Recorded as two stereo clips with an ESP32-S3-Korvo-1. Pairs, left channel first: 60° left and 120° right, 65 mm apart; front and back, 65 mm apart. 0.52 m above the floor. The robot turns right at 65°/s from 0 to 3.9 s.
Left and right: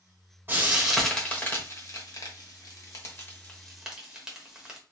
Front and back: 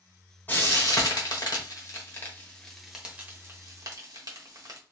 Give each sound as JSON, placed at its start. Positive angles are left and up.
{"t": 0.5, "sound": "frying", "azimuth_deg": -65, "distance_m": 1.0}